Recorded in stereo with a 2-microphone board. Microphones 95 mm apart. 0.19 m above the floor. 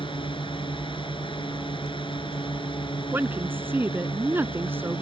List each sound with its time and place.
0.0 s a drone: 60° left (ahead or behind)
3.1 s a woman speaking: 20° right (ahead or behind)